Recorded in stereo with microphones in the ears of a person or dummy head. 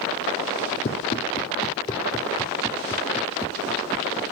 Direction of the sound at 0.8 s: 40° left (ahead or behind).